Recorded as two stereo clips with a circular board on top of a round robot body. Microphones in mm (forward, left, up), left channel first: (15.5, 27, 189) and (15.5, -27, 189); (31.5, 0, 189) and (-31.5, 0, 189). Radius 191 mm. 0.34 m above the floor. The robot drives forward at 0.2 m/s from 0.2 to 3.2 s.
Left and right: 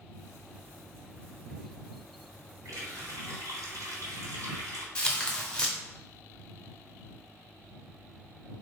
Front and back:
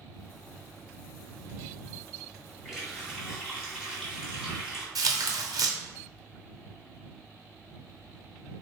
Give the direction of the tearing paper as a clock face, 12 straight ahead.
7 o'clock.